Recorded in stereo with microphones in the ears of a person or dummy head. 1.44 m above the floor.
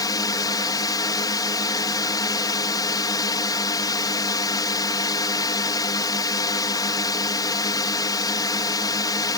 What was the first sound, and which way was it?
A drone, 20° left (ahead or behind).